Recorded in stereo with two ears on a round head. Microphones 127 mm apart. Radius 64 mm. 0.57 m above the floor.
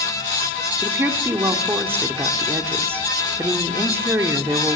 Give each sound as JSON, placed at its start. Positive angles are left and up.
{"t": 0.8, "sound": "a woman speaking", "side_deg": -15, "distance_m": 1.4}